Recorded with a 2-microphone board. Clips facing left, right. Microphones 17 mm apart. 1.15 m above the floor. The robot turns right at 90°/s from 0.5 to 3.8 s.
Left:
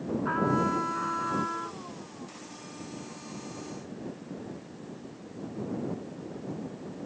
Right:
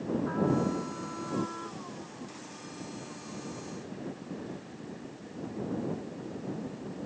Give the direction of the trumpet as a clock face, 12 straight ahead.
10 o'clock.